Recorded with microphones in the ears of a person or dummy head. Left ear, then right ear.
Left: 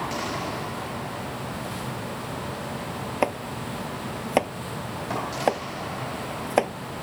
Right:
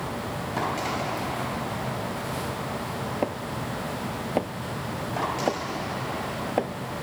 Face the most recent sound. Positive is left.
turn(degrees=50)  # may be behind; listen again after turning